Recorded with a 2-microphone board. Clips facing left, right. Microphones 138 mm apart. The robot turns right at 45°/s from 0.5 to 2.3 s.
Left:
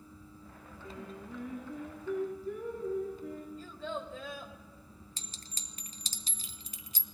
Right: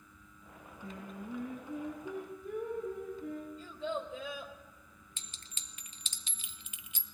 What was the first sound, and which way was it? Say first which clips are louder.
Singing: right 1 dB; 150° right.